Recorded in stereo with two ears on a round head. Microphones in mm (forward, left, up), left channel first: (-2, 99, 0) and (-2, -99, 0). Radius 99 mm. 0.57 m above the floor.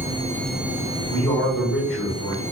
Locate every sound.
1.1 s a man speaking: 5° left (ahead or behind), 1.1 m